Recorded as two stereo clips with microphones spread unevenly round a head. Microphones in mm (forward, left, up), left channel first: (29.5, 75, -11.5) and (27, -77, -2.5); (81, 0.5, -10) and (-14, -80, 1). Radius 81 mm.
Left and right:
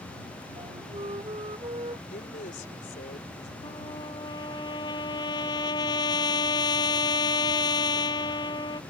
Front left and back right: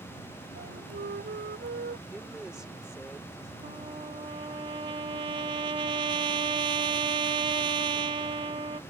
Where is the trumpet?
155° left.